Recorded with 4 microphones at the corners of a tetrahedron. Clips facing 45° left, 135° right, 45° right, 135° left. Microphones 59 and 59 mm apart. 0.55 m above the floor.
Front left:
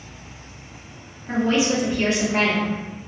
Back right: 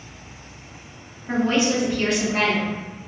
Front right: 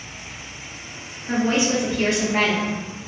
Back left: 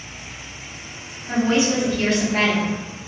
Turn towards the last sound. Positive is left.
turn(degrees=25)